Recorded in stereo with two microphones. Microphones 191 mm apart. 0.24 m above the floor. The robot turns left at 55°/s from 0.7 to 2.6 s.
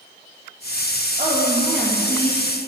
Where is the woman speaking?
140° right, 4.5 m; by 2.7 s 145° left, 4.5 m.